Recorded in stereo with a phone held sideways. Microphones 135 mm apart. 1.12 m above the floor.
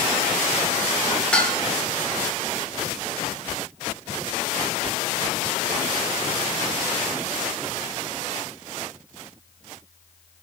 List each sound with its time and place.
1.3 s dishes clattering: 10° left (ahead or behind), 2.5 m